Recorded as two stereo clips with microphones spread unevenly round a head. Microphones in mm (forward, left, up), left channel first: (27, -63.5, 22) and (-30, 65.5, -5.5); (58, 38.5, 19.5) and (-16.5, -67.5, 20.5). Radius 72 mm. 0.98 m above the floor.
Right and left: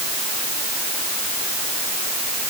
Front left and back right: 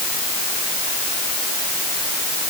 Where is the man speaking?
No man speaking in this recording.